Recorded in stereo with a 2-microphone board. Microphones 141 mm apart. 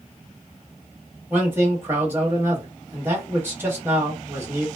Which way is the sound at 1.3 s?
15° right (ahead or behind).